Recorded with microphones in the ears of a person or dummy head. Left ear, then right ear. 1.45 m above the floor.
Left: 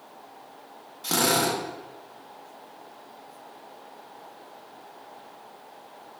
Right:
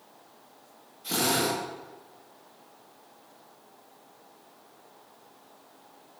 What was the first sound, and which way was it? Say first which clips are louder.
A drill: left 3 dB; 70° left (ahead or behind).